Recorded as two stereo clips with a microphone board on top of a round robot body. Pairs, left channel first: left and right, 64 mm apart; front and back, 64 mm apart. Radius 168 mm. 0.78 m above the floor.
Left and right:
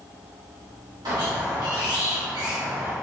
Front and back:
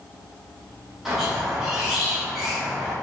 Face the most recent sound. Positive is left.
turn(degrees=-95)